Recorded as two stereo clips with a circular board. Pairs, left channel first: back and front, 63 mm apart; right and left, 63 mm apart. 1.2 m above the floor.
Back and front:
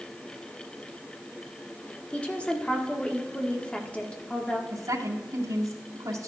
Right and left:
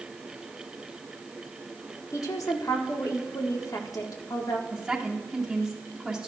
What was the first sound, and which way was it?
A woman speaking, 110° right.